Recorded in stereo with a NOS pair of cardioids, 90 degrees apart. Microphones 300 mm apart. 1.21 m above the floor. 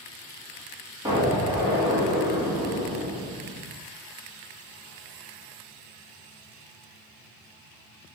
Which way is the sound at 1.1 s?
10° right.